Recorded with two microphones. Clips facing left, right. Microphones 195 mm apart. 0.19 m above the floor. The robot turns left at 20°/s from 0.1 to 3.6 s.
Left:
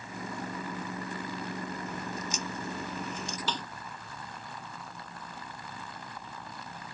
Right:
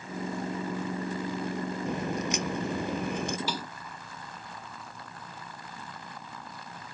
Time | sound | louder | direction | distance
1.9 | a crack | right 7 dB | 80° right | ?
3.5 | a snare drum | right 2 dB | 10° right (ahead or behind) | ?